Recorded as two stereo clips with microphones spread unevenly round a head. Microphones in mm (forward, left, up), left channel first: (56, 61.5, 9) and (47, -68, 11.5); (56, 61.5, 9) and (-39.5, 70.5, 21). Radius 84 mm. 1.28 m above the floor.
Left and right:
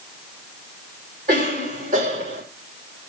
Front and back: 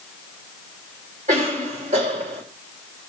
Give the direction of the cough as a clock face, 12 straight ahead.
5 o'clock.